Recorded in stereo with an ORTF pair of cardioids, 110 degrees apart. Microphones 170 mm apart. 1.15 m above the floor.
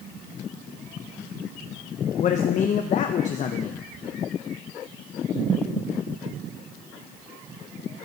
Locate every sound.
2.2 s a man speaking: 45° left, 0.6 m